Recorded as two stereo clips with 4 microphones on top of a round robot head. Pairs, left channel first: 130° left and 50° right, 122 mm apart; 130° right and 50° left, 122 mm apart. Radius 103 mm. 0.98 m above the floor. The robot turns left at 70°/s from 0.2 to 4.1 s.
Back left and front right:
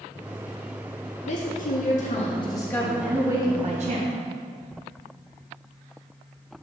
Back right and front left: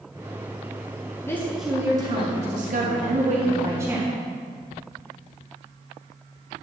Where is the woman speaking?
160° left, 1.4 m; by 4.1 s 40° right, 1.4 m.